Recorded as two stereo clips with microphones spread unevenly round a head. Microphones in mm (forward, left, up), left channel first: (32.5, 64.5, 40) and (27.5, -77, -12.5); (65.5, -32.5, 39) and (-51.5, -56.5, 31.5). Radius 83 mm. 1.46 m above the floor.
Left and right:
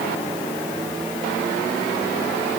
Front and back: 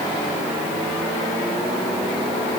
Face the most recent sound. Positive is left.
No sound to turn to.